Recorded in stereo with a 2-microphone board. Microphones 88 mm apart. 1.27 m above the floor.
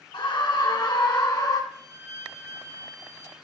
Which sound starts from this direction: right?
A violin, at 1.7 s.